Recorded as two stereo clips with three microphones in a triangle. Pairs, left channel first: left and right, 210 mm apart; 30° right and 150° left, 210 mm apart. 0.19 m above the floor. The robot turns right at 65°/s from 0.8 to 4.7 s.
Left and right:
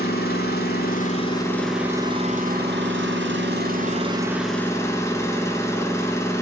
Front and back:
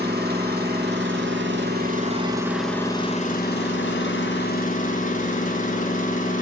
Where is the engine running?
120° left, 1.6 m; by 6.4 s 15° left, 1.6 m.